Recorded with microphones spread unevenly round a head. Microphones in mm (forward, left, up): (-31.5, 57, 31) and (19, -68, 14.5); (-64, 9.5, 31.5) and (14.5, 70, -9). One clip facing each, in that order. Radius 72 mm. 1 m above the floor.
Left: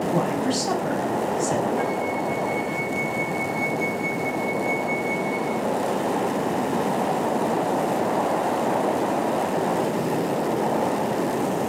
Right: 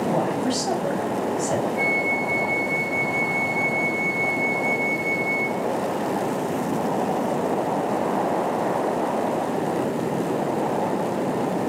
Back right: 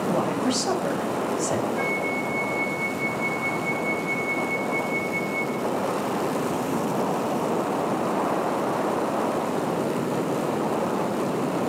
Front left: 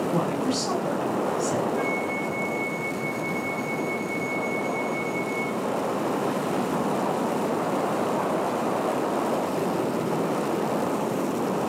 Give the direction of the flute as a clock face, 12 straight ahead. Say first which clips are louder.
Left 1 dB, even; 3 o'clock.